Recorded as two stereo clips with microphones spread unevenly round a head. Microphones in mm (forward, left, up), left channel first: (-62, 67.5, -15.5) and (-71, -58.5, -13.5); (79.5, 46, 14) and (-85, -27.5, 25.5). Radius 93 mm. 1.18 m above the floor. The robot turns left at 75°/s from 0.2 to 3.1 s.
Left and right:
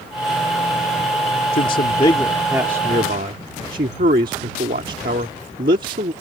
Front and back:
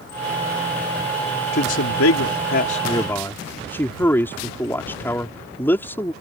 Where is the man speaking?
60° left; by 6.1 s 55° right.